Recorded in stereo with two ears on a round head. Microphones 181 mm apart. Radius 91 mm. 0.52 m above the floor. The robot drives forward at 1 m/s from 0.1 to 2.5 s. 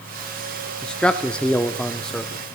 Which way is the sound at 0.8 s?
5° left (ahead or behind).